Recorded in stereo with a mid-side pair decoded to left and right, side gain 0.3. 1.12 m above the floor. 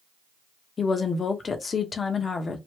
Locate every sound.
0.8 s a woman speaking: 55° left, 0.9 m